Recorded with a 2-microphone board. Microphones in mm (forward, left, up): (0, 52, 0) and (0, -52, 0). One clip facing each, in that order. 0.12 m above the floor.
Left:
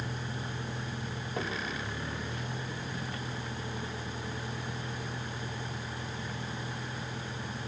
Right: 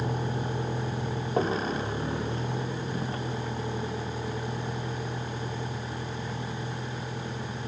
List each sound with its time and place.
0.0 s a vehicle: 45° right (ahead or behind); by 7.7 s 25° right (ahead or behind)